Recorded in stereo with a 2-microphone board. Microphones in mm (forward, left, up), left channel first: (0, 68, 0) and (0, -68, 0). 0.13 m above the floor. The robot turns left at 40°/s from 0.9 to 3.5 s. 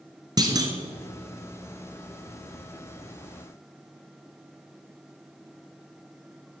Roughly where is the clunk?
Right.